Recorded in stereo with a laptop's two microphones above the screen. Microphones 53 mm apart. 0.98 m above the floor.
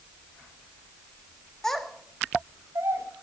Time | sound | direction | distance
1.6 | a child speaking | 10° left (ahead or behind) | 1.0 m